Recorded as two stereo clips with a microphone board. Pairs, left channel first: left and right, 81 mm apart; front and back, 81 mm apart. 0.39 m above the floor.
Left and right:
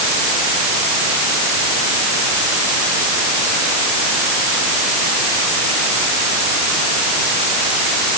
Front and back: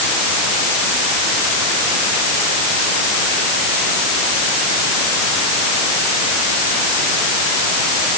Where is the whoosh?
I don't hear a whoosh.